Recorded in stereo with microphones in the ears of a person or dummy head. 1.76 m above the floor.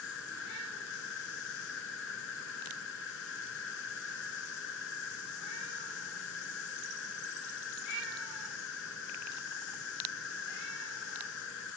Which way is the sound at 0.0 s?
70° left (ahead or behind).